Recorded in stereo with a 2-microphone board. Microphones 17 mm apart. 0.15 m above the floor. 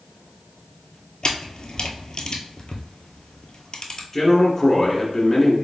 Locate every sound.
1.2 s a camera shutter: 45° left (ahead or behind), 0.8 m
4.1 s a man speaking: 15° left (ahead or behind), 1.7 m